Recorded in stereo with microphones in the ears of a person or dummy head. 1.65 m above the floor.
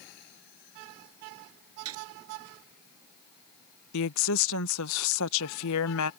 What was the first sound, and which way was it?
A gunshot, 70° right (ahead or behind).